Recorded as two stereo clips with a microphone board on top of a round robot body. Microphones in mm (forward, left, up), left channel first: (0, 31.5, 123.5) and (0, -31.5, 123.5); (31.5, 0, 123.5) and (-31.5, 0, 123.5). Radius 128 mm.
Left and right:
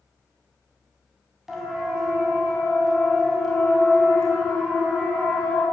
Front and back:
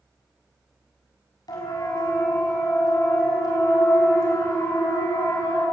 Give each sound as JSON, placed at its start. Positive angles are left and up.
{"t": 1.5, "sound": "a siren", "azimuth_deg": -5, "distance_m": 7.0}